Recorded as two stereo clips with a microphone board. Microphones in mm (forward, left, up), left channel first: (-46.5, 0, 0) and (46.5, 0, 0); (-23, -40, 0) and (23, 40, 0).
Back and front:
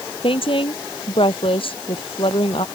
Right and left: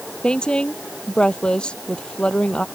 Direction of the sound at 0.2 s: 160° left.